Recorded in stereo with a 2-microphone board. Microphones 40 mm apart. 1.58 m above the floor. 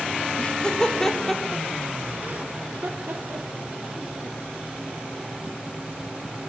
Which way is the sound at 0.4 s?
25° left (ahead or behind).